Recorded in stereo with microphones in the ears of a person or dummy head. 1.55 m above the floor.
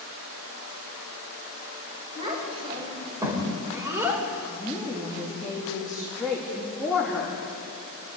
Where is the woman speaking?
5° right (ahead or behind), 2.5 m.